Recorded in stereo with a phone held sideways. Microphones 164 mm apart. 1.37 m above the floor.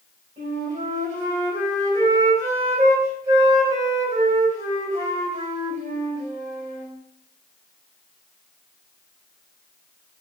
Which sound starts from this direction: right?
A flute, at 0.4 s.